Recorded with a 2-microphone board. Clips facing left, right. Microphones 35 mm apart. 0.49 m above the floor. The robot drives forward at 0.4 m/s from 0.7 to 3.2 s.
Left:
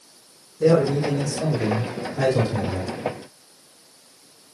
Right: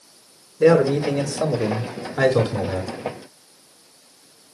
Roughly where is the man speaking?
Right.